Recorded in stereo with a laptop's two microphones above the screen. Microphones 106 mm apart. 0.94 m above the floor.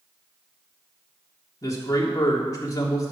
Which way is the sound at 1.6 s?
35° left (ahead or behind).